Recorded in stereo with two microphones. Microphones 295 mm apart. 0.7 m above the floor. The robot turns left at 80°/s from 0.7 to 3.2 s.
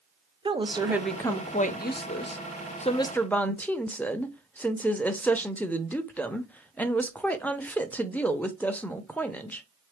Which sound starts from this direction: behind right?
A woman speaking, at 0.5 s.